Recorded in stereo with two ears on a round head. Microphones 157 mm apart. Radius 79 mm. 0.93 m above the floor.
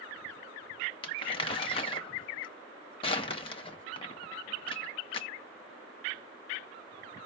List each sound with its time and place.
1.0 s crumpling: 30° left (ahead or behind), 0.8 m